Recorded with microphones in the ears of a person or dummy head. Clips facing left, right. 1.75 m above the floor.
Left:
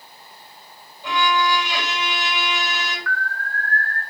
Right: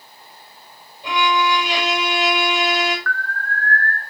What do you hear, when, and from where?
1.0 s a violin: 20° right (ahead or behind), 7 m
3.1 s an alarm: 10° left (ahead or behind), 1.5 m